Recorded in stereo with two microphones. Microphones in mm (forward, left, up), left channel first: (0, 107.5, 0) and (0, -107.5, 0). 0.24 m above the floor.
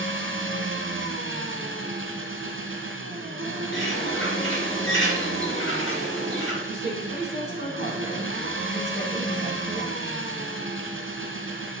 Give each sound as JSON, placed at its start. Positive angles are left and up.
{"t": 0.0, "sound": "an engine running", "side_deg": -65, "distance_m": 1.3}
{"t": 3.7, "sound": "a bird", "side_deg": 60, "distance_m": 3.5}
{"t": 6.6, "sound": "a woman speaking", "side_deg": 50, "distance_m": 2.0}